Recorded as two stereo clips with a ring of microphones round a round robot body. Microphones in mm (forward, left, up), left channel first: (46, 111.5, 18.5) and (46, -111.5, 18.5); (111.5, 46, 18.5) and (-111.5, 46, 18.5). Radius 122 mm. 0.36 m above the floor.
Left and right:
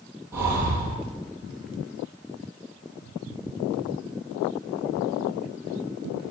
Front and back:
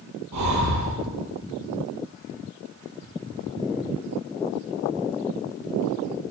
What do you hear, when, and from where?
0.3 s breathing: 170° right, 9.5 m